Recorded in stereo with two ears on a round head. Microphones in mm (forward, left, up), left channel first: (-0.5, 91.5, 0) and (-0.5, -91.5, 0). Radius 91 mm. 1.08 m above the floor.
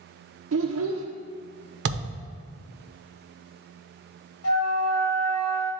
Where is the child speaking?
70° right (ahead or behind), 0.6 m.